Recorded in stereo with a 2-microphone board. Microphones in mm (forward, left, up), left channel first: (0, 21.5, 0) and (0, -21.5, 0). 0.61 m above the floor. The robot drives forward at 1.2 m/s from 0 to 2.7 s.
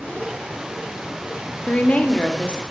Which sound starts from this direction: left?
A woman speaking, at 1.7 s.